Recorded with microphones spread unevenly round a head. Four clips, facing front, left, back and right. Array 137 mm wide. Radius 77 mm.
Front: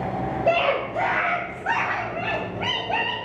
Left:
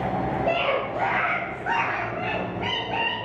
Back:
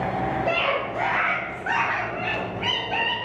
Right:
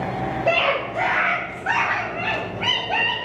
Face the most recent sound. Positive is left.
turn(degrees=5)